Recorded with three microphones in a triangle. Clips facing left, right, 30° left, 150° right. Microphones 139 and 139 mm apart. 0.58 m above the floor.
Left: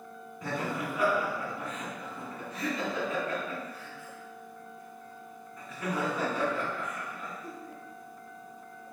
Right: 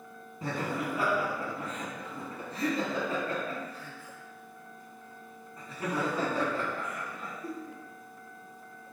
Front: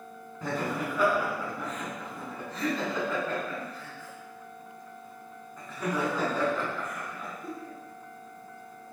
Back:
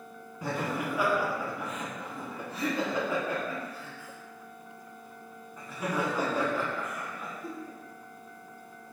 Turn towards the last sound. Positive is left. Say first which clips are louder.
# right 1 dB, front 1 dB
turn(degrees=-80)